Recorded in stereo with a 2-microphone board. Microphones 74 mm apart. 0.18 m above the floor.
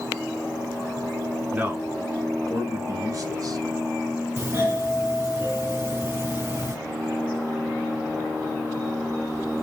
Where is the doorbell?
30° right (ahead or behind), 1.9 m.